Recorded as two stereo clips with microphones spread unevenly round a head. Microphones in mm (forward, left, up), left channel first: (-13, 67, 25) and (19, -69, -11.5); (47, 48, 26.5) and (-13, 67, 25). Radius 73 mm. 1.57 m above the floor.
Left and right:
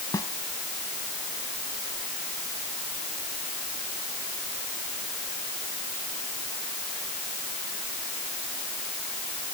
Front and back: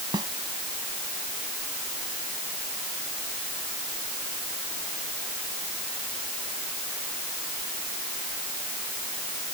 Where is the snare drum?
170° left.